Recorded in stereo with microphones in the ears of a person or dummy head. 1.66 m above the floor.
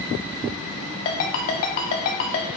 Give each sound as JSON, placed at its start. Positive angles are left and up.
{"t": 1.1, "sound": "a ringtone", "side_deg": 30, "distance_m": 0.6}